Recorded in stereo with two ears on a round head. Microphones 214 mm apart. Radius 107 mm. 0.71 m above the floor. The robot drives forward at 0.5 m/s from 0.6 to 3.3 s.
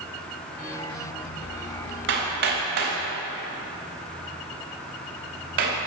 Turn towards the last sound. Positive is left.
turn(degrees=-45)  # may be behind; listen again after turning